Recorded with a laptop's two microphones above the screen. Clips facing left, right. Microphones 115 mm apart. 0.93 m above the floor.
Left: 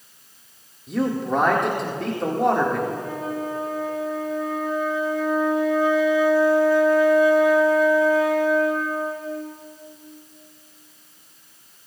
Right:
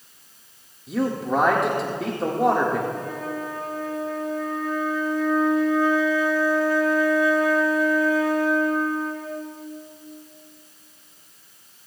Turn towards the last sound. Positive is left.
turn(degrees=25)  # may be behind; listen again after turning